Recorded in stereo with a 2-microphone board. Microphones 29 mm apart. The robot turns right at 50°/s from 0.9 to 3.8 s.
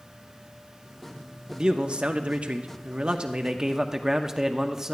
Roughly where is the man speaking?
Behind right.